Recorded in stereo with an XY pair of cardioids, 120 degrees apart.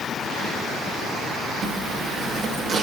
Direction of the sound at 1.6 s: 40° right.